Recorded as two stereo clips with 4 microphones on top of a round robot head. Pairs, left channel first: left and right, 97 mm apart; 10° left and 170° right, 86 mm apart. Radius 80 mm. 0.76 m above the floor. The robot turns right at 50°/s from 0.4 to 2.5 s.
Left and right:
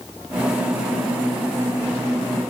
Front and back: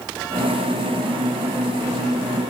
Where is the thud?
No thud in this recording.